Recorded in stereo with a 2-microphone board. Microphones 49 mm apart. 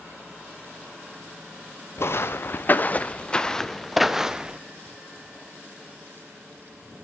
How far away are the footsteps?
About 1.3 m.